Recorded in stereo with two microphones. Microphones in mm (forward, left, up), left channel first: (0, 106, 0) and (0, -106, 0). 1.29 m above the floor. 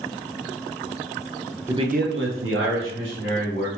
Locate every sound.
1.7 s a man speaking: 15° right (ahead or behind), 0.5 m; by 3.7 s 70° right (ahead or behind), 2.0 m